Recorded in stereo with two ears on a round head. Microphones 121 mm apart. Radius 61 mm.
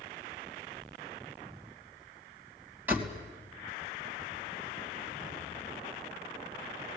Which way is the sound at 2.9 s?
15° right (ahead or behind).